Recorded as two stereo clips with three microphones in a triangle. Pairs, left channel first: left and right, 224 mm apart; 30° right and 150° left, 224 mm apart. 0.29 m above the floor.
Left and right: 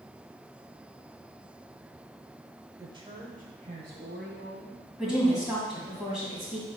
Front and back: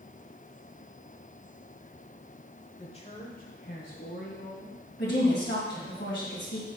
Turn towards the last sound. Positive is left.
turn(degrees=0)